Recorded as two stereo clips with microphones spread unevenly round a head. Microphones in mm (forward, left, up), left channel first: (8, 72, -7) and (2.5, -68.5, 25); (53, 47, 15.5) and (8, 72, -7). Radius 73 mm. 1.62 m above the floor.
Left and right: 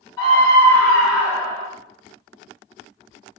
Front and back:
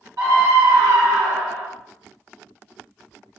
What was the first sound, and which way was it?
A scream, 155° left.